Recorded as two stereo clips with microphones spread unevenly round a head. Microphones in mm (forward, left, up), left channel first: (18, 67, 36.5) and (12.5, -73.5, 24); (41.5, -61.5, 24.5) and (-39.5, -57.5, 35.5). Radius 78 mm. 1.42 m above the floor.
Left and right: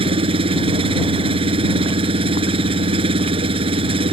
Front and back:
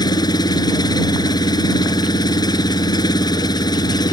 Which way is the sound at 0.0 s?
40° right.